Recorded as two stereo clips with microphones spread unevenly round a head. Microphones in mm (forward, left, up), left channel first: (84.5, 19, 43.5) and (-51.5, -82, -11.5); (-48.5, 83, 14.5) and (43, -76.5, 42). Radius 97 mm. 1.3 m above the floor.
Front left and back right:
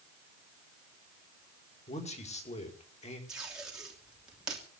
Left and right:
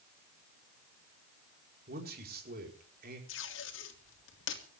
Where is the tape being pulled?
130° left, 3 m.